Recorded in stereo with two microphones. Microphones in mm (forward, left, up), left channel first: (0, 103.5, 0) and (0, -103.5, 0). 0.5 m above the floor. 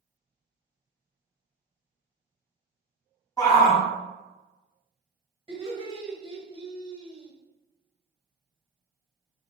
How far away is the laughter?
About 1.2 m.